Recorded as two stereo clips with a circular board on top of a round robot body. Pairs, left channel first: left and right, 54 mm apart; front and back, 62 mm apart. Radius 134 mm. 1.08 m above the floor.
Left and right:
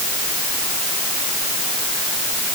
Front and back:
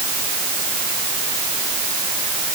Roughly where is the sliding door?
No sliding door in this recording.